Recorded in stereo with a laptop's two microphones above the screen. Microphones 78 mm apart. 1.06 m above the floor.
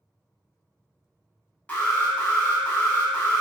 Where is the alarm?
20° left (ahead or behind), 1.0 m.